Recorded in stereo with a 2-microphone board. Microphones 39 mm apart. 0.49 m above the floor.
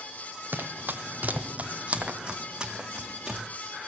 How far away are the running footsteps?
About 0.9 m.